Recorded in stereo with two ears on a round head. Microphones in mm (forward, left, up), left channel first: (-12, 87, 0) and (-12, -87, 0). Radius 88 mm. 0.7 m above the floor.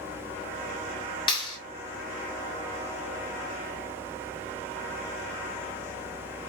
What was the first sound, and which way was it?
A clap, 25° left (ahead or behind).